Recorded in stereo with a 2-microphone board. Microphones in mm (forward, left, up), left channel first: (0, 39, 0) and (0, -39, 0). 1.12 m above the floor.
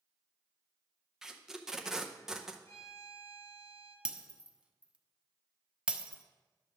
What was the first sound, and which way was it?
Tape being pulled, 5° right (ahead or behind).